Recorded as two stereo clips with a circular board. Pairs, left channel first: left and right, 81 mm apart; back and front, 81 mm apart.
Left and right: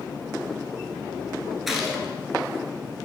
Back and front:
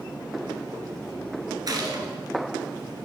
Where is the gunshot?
5° right, 1.1 m.